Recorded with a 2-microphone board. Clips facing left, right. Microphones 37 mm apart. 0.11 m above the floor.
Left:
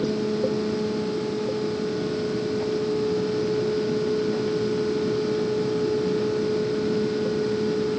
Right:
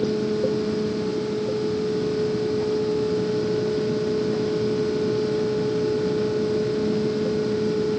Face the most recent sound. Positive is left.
No sound to turn to.